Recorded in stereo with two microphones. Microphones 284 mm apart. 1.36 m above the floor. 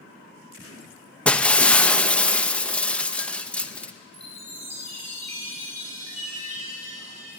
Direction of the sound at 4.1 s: 60° right (ahead or behind).